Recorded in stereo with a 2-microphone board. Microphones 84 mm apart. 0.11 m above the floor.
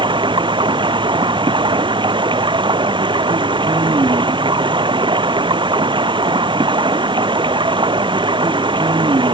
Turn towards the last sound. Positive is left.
turn(degrees=-70)  # may be behind; listen again after turning